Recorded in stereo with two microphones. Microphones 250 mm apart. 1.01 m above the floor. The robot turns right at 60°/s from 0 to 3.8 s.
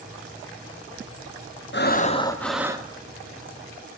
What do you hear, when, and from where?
1.7 s breathing: 130° left, 0.7 m; by 2.9 s 160° right, 0.7 m